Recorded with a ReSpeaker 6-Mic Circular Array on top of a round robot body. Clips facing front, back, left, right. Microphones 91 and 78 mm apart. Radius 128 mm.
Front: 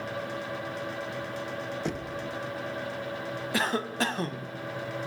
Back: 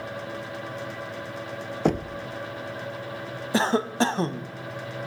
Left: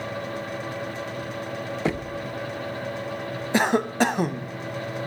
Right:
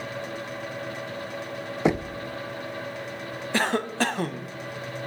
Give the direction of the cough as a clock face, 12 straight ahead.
7 o'clock.